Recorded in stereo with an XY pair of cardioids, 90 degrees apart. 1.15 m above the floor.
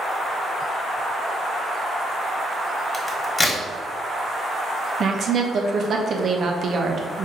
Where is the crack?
30° left, 1.4 m.